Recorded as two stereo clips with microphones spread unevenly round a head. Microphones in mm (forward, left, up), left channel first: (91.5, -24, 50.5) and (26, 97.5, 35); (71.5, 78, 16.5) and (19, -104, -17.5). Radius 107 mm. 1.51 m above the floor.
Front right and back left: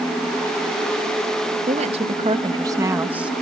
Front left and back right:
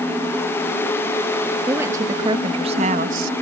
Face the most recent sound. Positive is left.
turn(degrees=-155)